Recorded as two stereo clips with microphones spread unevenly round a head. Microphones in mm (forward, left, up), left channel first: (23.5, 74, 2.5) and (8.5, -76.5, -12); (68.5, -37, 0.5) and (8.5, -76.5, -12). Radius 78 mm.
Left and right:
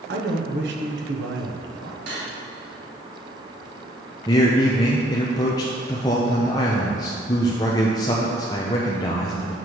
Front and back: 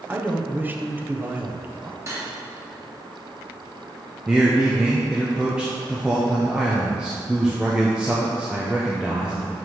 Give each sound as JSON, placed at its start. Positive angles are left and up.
{"t": 0.1, "sound": "a man speaking", "azimuth_deg": -80, "distance_m": 1.0}
{"t": 2.1, "sound": "cutlery clinking", "azimuth_deg": -100, "distance_m": 2.5}
{"t": 4.3, "sound": "a man speaking", "azimuth_deg": 125, "distance_m": 0.6}